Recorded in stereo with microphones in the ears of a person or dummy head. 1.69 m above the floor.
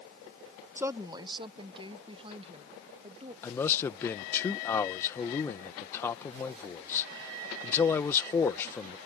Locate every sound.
0.8 s a woman speaking: 10° right (ahead or behind); by 3.3 s 30° right (ahead or behind)
3.4 s a man speaking: 10° left (ahead or behind)